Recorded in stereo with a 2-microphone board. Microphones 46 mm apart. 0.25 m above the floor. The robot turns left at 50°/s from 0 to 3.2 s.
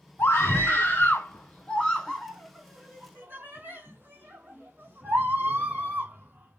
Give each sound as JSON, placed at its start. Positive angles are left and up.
{"t": 0.2, "sound": "a scream", "side_deg": 60, "distance_m": 1.8}